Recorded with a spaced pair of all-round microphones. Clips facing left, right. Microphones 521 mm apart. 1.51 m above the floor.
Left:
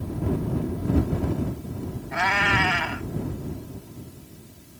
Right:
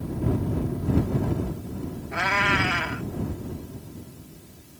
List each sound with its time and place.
2.1 s a cat meowing: 20° left (ahead or behind)